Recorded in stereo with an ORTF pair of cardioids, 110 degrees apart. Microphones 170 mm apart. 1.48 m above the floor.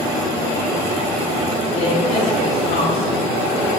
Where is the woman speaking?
45° left, 3.5 m.